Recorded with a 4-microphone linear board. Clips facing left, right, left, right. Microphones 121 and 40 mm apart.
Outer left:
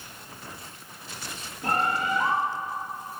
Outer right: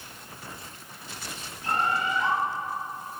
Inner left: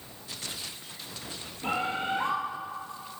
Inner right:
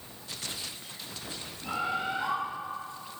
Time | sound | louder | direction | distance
1.6 | a bird | outer left 1 dB, inner left 2 dB | 45° left (ahead or behind) | 4 m